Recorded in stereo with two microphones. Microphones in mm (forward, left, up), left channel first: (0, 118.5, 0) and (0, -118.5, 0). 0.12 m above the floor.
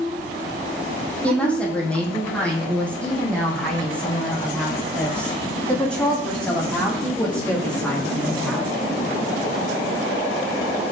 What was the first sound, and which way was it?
A woman speaking, 5° left (ahead or behind).